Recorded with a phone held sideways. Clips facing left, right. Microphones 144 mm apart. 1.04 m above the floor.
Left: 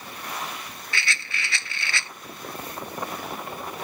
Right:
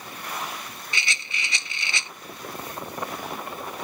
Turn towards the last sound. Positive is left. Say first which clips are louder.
# left 2 dB
turn(degrees=-20)  # may be behind; listen again after turning